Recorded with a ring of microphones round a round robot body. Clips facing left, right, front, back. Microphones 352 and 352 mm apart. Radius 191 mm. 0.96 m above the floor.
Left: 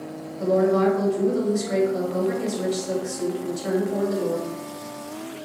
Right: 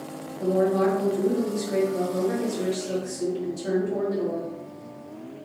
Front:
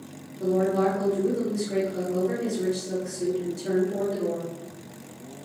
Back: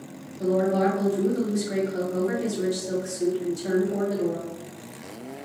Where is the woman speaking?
135° left, 1.3 m.